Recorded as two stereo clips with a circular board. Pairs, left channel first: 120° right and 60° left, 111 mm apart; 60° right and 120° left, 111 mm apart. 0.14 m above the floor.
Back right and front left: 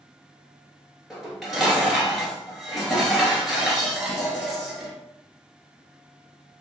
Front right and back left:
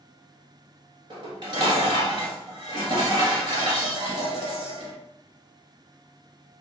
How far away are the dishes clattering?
About 1.5 m.